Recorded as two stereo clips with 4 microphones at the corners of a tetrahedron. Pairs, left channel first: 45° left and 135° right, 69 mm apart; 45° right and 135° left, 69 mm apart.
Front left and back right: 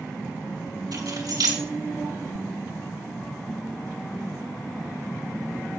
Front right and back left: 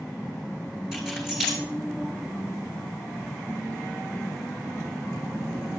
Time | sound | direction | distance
0.9 | keys jangling | 140° right | 4.5 m